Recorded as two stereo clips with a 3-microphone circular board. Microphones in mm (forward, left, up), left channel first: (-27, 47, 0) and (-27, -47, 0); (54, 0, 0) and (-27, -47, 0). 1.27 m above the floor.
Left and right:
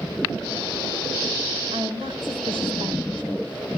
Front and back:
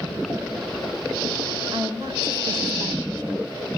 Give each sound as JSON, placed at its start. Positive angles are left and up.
{"t": 1.7, "sound": "a woman speaking", "azimuth_deg": -105, "distance_m": 4.5}